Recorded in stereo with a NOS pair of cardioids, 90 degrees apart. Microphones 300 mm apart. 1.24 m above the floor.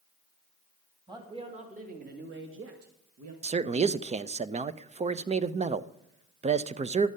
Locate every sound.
1.1 s a man speaking: 15° right, 2.5 m; by 3.3 s 65° right, 1.9 m
3.4 s a man speaking: 20° right, 0.6 m